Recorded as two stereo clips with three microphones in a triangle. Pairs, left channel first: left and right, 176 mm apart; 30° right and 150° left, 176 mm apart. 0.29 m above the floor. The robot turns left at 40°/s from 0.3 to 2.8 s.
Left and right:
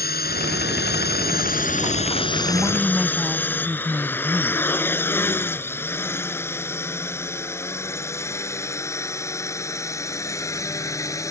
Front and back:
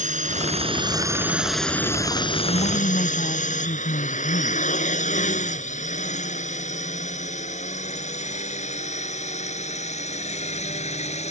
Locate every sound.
0.0 s a drone: 110° left; by 11.3 s 20° left
2.5 s a woman speaking: straight ahead; by 4.6 s 15° right